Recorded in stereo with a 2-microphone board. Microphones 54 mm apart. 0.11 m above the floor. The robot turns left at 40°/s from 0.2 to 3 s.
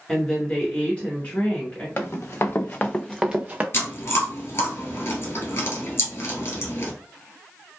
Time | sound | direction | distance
0.1 | a woman speaking | 10° left (ahead or behind) | 1.2 m
2.0 | running footsteps | 45° left (ahead or behind) | 0.9 m
3.7 | chewing | 50° left (ahead or behind) | 1.3 m